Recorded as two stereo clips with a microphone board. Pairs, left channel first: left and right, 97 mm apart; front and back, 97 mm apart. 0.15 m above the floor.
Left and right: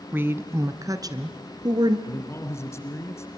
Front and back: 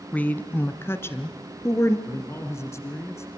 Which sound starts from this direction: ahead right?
A woman speaking, at 0.1 s.